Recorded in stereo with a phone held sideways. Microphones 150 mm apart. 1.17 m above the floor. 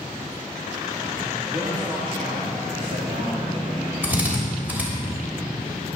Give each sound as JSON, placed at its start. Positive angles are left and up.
{"t": 1.5, "sound": "a man speaking", "side_deg": -35, "distance_m": 2.5}
{"t": 4.0, "sound": "a drill", "side_deg": -10, "distance_m": 3.0}